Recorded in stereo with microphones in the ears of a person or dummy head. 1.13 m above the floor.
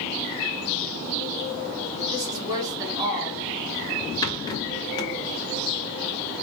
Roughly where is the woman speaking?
Right.